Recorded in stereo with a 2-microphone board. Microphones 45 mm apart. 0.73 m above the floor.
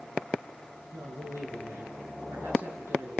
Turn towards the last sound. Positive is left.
turn(degrees=-85)